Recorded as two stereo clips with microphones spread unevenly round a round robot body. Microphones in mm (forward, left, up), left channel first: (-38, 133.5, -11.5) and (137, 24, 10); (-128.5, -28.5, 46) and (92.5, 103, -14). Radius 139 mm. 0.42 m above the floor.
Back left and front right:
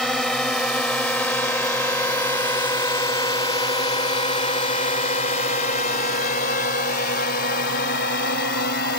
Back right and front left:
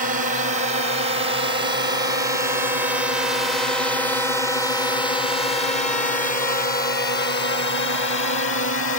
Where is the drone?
60° left; by 9.0 s 175° left.